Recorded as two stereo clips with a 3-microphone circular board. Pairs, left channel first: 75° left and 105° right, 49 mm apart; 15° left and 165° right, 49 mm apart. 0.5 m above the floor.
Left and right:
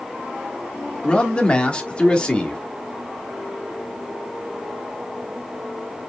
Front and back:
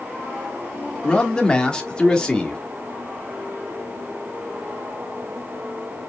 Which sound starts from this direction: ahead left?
A man speaking, at 1.0 s.